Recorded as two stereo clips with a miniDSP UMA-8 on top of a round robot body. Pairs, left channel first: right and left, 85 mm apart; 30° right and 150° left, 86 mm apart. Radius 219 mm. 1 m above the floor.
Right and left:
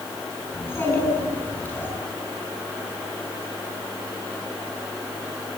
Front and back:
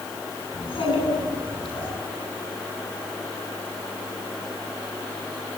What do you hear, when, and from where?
0.5 s a child speaking: 25° right, 8 m; by 1.9 s 20° right, 8 m